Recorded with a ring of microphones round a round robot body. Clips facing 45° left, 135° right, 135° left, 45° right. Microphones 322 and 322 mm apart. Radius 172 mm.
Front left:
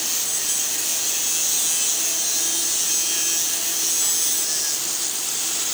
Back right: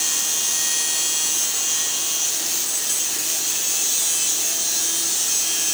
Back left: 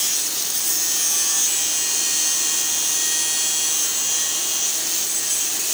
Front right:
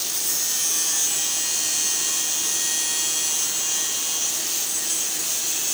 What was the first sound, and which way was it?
Only background noise.